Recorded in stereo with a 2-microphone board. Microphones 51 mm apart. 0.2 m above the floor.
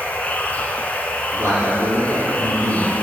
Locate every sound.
0.0 s running water: 30° left (ahead or behind), 0.7 m
1.3 s a man speaking: 60° right (ahead or behind), 2.5 m